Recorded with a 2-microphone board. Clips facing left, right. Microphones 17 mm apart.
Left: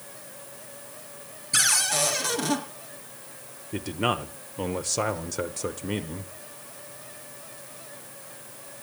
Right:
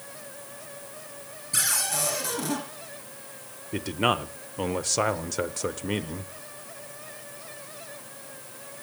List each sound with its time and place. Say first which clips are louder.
1.5 s a cupboard door: left 4 dB; 25° left (ahead or behind), 3.5 m
3.7 s a man speaking: right 2 dB; 15° right (ahead or behind), 0.8 m